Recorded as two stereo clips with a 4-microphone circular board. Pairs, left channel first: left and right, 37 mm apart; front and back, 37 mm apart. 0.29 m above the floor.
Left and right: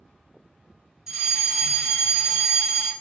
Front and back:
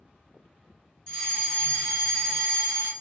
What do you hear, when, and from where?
1.1 s a fire alarm: 40° right, 1.9 m